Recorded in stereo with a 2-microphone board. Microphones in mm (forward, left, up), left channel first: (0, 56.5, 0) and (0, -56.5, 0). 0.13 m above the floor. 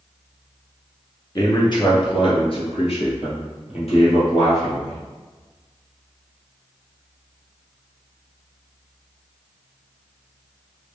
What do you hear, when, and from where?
1.4 s a man speaking: 35° left (ahead or behind), 1.4 m; by 5.0 s 70° left (ahead or behind), 3.5 m